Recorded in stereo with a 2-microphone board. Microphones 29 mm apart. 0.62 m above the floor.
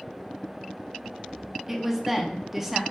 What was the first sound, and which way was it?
A woman speaking, 5° right (ahead or behind).